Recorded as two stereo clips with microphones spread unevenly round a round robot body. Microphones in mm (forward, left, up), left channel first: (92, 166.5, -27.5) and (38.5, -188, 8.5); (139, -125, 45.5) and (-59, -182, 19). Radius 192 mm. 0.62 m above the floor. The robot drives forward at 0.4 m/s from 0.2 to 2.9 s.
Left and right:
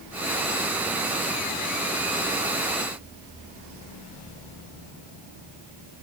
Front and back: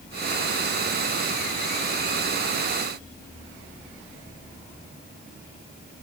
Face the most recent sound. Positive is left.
No sound to turn to.